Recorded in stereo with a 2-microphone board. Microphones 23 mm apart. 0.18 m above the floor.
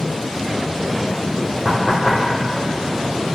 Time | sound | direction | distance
1.6 | knocking | 50° right (ahead or behind) | 5 m